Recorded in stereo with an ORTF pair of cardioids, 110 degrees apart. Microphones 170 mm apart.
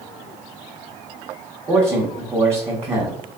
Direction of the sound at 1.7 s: 20° right.